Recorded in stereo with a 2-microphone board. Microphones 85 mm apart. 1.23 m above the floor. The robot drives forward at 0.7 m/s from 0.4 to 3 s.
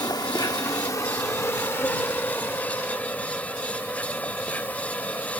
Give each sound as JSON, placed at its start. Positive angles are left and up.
{"t": 0.0, "sound": "an insect", "side_deg": 50}